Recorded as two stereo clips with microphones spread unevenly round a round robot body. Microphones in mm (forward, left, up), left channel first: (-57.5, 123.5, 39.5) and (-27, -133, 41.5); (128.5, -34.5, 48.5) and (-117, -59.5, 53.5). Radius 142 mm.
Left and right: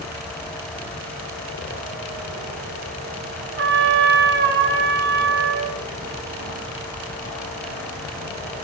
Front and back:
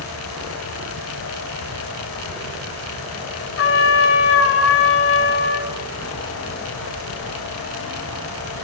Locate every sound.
3.6 s a trumpet: 30° right, 1.8 m